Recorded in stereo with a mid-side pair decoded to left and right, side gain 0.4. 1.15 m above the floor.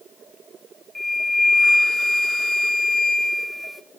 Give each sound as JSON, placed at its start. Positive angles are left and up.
{"t": 0.9, "sound": "a flute", "azimuth_deg": 15, "distance_m": 0.8}